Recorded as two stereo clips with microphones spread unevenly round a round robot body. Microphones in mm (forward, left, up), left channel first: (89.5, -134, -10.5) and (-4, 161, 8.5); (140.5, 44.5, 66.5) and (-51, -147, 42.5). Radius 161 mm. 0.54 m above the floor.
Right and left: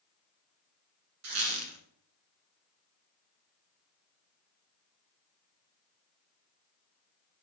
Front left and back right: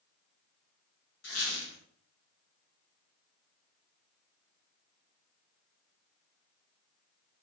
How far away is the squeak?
About 1.2 m.